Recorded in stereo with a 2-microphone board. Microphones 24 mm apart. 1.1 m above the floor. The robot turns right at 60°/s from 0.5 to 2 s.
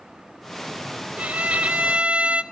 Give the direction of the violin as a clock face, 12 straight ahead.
4 o'clock.